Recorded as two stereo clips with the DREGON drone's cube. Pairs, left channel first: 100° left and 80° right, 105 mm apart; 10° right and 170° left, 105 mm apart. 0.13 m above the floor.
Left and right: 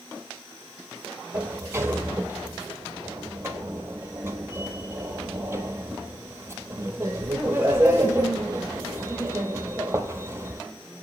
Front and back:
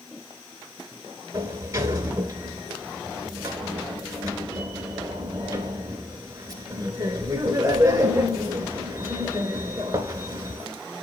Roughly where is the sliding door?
Behind right.